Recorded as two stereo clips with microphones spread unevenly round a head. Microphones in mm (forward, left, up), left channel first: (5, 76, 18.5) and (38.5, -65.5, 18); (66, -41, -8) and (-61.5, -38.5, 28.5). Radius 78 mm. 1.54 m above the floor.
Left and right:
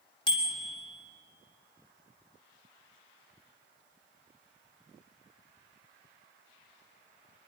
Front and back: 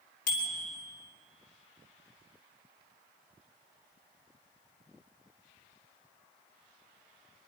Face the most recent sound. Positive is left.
turn(degrees=45)